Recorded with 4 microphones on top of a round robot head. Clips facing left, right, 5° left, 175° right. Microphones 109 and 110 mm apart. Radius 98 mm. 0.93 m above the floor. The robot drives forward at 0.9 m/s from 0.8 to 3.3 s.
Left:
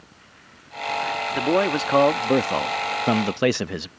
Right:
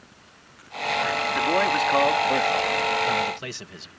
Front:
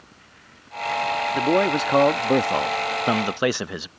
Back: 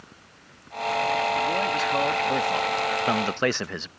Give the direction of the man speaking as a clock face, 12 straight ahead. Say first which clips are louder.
Left 2 dB, front 5 dB; 11 o'clock.